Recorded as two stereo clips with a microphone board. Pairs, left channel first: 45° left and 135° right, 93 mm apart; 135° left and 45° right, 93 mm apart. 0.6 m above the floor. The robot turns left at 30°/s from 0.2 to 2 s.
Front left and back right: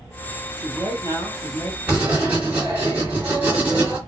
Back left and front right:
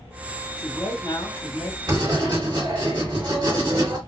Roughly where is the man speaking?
Behind.